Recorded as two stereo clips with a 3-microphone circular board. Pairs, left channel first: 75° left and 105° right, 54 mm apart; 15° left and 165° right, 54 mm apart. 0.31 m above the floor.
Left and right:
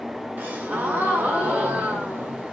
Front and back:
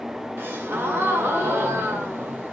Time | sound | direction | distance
0.4 | a gasp | 140° right | 1.6 m